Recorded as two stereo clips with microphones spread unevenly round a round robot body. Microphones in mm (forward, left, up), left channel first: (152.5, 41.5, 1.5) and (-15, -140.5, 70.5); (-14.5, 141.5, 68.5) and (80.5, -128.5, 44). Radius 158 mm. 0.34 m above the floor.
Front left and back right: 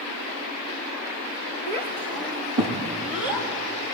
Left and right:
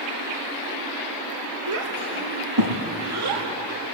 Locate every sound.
1.7 s a child speaking: 115° right, 4 m; by 3.5 s 105° right, 6 m